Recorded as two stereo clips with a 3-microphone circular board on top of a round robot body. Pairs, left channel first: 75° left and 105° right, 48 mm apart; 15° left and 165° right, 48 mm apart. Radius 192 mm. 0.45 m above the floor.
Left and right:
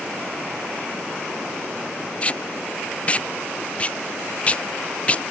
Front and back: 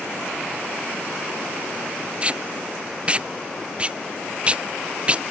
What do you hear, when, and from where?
2.2 s tape being pulled: 135° left